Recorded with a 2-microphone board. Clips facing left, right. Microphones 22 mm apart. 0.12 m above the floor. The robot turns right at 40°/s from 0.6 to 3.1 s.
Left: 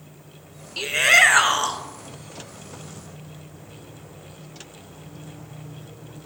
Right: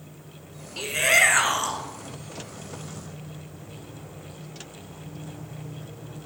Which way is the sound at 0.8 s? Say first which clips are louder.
Left 4 dB; 25° left (ahead or behind).